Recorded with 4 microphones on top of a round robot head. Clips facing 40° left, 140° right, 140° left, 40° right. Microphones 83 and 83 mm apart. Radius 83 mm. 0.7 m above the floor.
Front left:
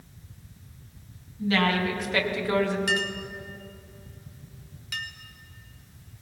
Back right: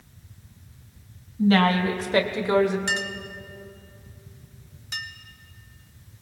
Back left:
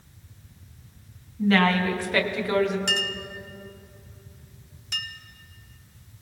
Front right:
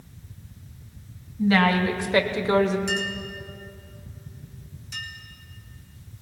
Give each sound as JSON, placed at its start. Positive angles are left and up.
{"t": 1.4, "sound": "a woman speaking", "azimuth_deg": -120, "distance_m": 1.6}
{"t": 2.9, "sound": "a clink", "azimuth_deg": 160, "distance_m": 1.1}